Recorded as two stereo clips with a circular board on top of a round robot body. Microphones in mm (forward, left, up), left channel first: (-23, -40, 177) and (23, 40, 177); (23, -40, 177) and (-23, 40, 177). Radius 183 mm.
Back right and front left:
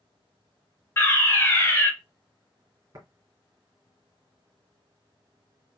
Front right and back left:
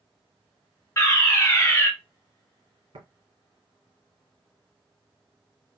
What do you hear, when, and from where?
1.0 s a fire alarm: 90° right, 1.9 m
2.9 s tapping: 110° left, 2.5 m